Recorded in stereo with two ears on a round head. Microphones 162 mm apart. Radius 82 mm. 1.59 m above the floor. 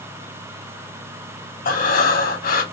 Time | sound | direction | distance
1.6 | breathing | 55° left (ahead or behind) | 3.5 m